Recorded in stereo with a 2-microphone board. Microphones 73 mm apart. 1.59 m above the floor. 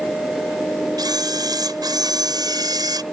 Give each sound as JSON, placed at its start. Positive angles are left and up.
{"t": 1.0, "sound": "a camera shutter", "side_deg": -70}